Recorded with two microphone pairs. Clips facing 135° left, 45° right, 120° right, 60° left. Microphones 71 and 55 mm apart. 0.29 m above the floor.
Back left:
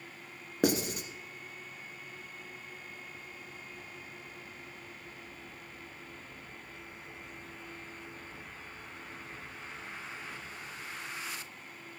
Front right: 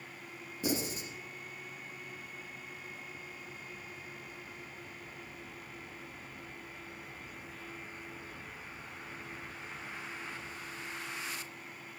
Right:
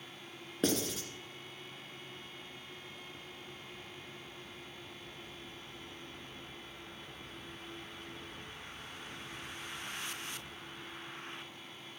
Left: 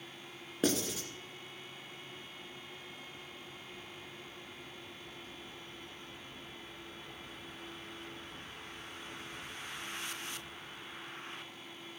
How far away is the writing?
About 1.6 m.